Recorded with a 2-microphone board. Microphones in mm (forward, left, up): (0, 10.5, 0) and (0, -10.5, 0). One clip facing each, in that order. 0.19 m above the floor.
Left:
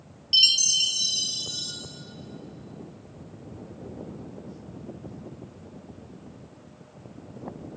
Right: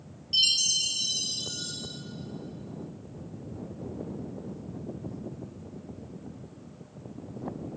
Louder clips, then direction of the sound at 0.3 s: Left 4 dB; 35° left (ahead or behind).